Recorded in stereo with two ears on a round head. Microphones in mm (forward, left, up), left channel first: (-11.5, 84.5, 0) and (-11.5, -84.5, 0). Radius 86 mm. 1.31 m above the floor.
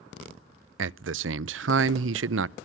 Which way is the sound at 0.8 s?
75° right (ahead or behind).